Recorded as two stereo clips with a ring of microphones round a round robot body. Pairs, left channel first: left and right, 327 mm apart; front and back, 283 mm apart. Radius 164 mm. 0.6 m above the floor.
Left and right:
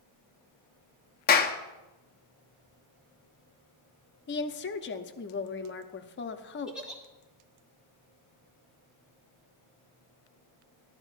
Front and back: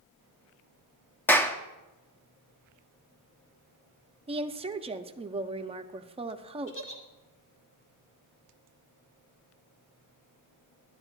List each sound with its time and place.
1.3 s a clap: 75° left, 0.7 m
4.3 s a woman speaking: 120° left, 0.6 m
6.7 s a giggle: 5° right, 1.6 m